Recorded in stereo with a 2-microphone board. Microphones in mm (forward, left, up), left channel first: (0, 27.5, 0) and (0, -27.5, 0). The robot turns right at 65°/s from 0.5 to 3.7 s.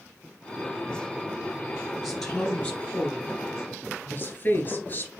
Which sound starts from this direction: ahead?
A woman speaking, at 2.0 s.